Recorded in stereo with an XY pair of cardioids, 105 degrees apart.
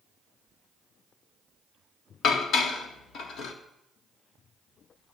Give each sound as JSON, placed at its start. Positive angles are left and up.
{"t": 2.2, "sound": "dishes clattering", "azimuth_deg": 70, "distance_m": 1.8}